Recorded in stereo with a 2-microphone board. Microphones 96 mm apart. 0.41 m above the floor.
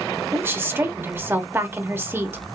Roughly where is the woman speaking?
Right.